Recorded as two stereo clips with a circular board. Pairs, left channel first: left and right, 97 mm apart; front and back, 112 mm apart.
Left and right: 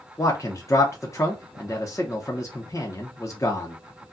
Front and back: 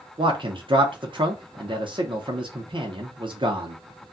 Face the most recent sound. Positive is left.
turn(degrees=145)